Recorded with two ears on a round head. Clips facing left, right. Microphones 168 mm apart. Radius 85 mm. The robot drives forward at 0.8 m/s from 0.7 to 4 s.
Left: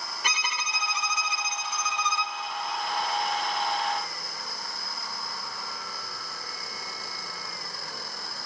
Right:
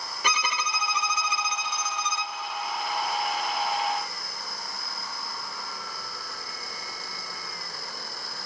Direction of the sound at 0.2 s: 65° right (ahead or behind).